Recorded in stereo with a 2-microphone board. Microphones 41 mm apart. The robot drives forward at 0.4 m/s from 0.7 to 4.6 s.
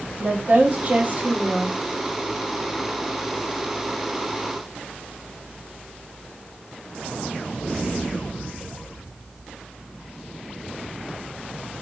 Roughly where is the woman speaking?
Right.